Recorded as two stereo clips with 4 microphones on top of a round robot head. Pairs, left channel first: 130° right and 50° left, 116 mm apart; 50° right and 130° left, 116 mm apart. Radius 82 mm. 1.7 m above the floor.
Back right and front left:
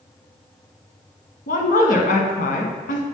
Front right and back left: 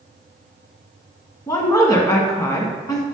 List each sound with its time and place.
1.5 s a woman speaking: 115° right, 1.3 m